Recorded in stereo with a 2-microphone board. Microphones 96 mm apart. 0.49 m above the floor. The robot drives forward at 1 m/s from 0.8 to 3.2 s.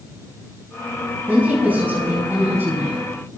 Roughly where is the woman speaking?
Centre.